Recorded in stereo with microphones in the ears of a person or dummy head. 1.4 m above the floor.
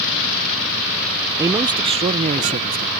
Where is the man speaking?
20° right (ahead or behind); by 2.9 s 45° right (ahead or behind).